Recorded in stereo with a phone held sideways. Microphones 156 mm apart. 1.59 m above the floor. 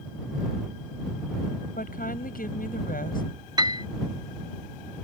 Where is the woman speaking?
65° left (ahead or behind).